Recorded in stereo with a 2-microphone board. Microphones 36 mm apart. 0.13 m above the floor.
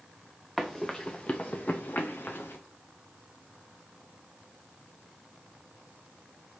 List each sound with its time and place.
0.6 s running footsteps: 10° left (ahead or behind), 1.1 m; by 2.6 s 80° left, 1.2 m